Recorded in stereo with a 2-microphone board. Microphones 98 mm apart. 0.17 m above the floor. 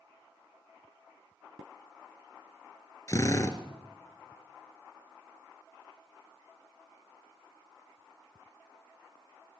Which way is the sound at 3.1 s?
35° left (ahead or behind).